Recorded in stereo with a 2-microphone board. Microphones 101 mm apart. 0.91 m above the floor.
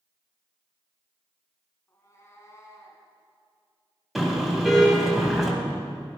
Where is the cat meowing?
30° left (ahead or behind), 3 m.